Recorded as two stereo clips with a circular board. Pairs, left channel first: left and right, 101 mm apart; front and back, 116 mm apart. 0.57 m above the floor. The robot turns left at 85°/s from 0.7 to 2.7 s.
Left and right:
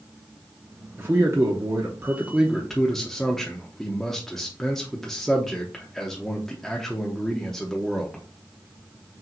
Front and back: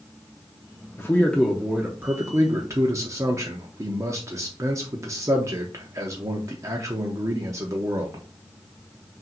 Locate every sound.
1.0 s a man speaking: 45° right, 0.6 m; by 8.2 s 170° left, 0.6 m